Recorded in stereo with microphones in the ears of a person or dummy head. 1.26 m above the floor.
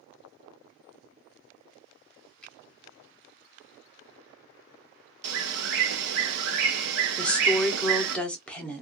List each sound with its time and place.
2.4 s a finger snap: centre (ahead or behind), 0.9 m
5.2 s a bird: 60° right (ahead or behind), 0.8 m
7.2 s a woman speaking: 5° left (ahead or behind), 0.6 m